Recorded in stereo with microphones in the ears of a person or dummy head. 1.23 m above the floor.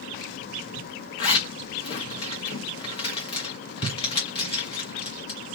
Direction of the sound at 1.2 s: 35° left (ahead or behind).